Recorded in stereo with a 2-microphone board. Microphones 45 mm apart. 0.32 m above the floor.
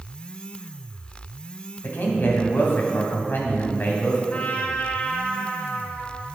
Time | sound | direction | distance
1.8 | a man speaking | 45° left (ahead or behind) | 1.8 m
4.3 | a trumpet | 30° left (ahead or behind) | 0.8 m